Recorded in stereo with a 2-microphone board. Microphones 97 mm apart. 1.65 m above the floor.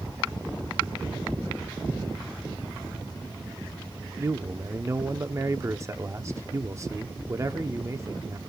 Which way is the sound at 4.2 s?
30° right (ahead or behind).